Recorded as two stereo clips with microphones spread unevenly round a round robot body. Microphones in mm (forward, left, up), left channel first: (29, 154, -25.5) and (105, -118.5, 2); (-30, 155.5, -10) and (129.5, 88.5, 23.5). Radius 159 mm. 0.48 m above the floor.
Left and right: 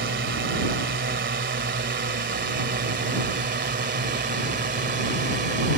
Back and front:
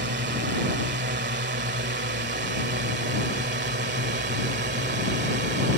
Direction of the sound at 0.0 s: 30° right.